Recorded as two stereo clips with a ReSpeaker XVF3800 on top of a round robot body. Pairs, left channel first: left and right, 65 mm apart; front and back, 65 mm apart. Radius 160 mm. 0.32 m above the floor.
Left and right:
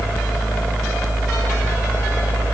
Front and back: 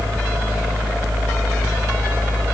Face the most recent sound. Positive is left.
No sound to turn to.